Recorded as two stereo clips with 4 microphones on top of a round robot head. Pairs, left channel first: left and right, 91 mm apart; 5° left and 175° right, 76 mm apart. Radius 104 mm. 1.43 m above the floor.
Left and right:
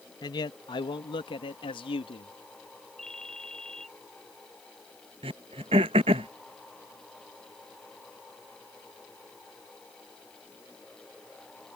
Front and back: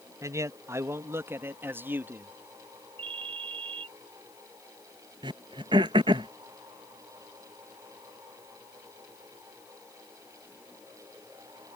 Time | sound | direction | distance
0.2 | a man speaking | 140° left | ?
3.0 | a ringtone | 175° left | ?
5.2 | throat clearing | 130° right | ?